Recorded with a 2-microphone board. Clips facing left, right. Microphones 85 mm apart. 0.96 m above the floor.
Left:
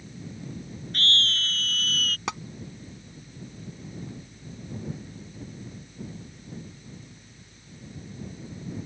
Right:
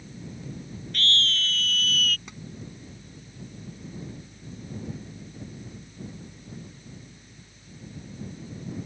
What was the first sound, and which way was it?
A scream, 35° left (ahead or behind).